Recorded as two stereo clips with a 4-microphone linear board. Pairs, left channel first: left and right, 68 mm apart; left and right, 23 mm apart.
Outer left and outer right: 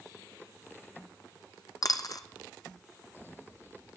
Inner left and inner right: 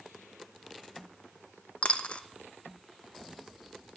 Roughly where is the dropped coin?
Left.